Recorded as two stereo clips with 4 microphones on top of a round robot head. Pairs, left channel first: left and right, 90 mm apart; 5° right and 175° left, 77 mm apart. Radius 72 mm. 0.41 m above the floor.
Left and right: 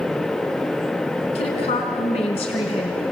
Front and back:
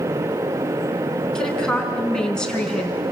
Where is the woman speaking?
75° left, 5 m.